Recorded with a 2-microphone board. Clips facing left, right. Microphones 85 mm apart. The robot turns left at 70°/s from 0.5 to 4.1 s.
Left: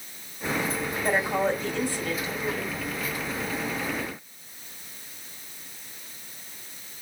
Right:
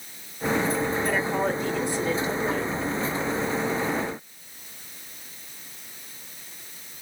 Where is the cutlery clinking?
I don't hear cutlery clinking.